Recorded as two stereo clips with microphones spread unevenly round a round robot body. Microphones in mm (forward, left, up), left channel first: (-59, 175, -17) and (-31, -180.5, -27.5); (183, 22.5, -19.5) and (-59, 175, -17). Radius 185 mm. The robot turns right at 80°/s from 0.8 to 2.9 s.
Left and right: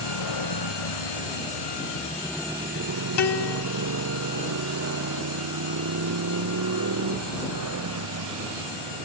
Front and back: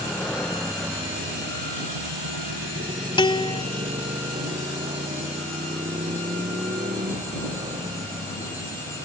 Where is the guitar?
40° left.